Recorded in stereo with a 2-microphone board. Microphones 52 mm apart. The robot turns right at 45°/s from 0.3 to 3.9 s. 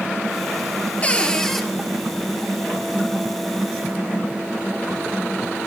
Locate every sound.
1.0 s a cupboard door: 30° left (ahead or behind), 1.0 m; by 1.6 s 5° left (ahead or behind), 1.0 m